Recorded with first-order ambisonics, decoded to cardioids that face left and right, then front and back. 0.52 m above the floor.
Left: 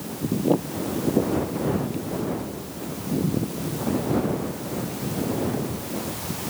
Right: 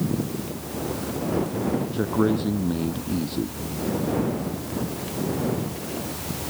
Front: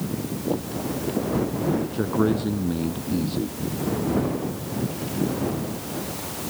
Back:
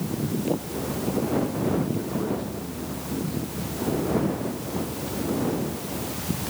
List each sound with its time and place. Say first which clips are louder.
1.9 s a man speaking: right 6 dB, front 5 dB; 50° right